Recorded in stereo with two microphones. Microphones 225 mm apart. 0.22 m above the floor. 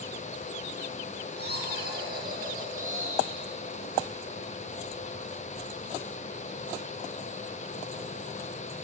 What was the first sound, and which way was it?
Laughter, 45° right (ahead or behind).